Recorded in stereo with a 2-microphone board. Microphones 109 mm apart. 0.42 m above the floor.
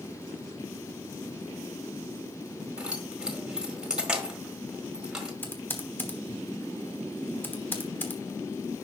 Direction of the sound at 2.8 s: 5° right (ahead or behind).